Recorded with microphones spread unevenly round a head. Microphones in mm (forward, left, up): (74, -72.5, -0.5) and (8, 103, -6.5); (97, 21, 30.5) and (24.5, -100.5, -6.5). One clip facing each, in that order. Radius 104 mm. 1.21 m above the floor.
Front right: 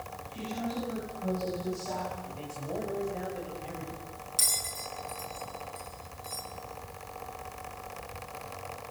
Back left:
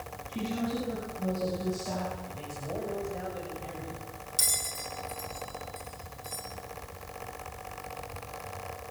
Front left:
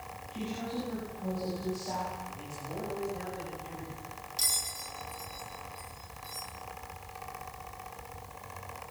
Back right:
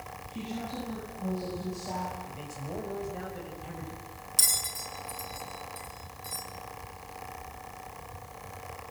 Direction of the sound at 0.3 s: 160° left.